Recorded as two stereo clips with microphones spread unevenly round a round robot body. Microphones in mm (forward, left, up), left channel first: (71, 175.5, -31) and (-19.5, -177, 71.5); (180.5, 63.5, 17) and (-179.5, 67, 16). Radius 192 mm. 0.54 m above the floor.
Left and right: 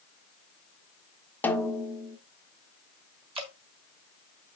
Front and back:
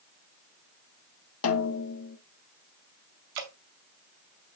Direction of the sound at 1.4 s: 15° left.